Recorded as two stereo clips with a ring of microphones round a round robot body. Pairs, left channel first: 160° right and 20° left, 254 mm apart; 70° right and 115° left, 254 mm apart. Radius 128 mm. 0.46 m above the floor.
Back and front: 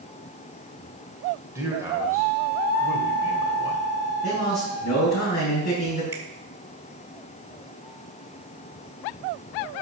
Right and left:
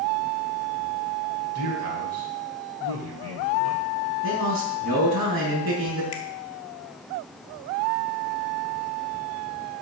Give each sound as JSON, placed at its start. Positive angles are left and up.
{"t": 1.6, "sound": "a man speaking", "azimuth_deg": 100, "distance_m": 2.0}
{"t": 4.2, "sound": "a man speaking", "azimuth_deg": 145, "distance_m": 4.5}
{"t": 6.1, "sound": "a finger snap", "azimuth_deg": -60, "distance_m": 1.6}